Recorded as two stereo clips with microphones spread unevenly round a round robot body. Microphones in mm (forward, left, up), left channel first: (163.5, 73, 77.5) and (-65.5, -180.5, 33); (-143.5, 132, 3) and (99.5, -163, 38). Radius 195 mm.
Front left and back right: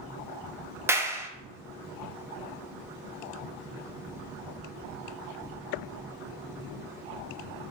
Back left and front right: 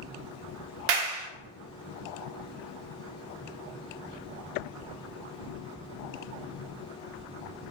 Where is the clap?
55° right, 0.5 m.